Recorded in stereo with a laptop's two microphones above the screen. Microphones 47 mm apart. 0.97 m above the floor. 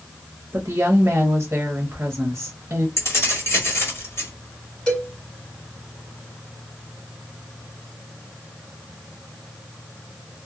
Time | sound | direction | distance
0.5 | a woman speaking | 50° right (ahead or behind) | 0.8 m
3.0 | keys jangling | 55° left (ahead or behind) | 1.5 m
4.9 | a cowbell | 25° left (ahead or behind) | 1.5 m